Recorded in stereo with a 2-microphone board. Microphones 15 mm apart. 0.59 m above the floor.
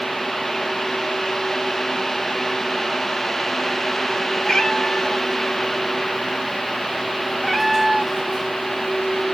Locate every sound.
4.4 s a cat meowing: 50° left (ahead or behind), 2 m; by 9.2 s 70° right (ahead or behind), 1.0 m